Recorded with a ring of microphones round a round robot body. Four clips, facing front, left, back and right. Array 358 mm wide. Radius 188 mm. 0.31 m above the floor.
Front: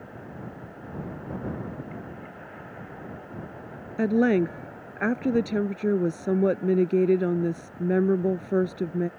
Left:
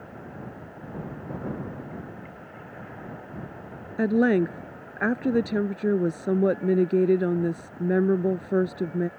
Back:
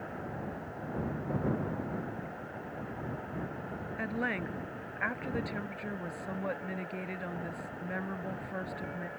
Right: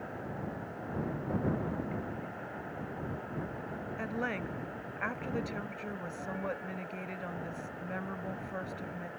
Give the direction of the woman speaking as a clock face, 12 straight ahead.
10 o'clock.